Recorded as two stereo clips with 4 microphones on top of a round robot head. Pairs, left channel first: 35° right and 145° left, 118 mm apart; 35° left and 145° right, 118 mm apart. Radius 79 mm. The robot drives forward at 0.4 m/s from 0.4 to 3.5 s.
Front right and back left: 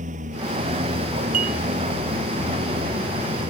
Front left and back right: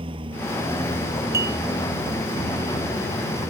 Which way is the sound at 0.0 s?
170° left.